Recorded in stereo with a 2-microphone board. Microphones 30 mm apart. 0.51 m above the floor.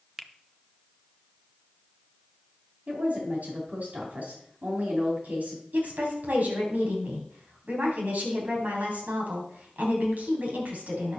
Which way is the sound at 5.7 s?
75° right (ahead or behind).